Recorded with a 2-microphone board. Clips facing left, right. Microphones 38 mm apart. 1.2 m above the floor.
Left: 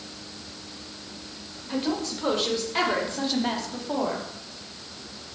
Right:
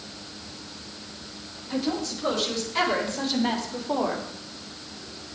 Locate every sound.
1.7 s a woman speaking: 40° left (ahead or behind), 5 m; by 4.3 s 10° right (ahead or behind), 2.5 m